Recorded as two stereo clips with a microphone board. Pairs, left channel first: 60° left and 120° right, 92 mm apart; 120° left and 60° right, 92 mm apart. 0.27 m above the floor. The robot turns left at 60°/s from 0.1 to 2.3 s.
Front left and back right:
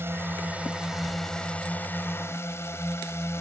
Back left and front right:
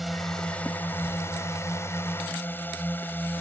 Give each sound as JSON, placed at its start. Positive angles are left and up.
{"t": 0.0, "sound": "a drone", "azimuth_deg": -150}